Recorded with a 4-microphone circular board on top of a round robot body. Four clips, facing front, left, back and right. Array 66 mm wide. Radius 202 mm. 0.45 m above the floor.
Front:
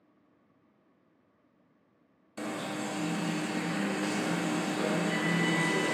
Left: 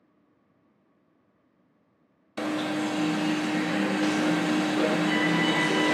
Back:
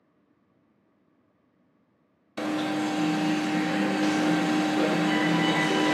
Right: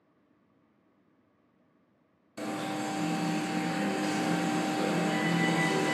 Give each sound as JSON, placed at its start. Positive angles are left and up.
{"t": 2.4, "sound": "an alarm", "azimuth_deg": 130, "distance_m": 0.7}